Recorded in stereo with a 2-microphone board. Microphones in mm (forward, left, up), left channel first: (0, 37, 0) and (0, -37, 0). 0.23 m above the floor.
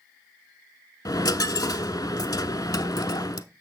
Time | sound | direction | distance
1.1 | a dropped coin | 60° left (ahead or behind) | 0.5 m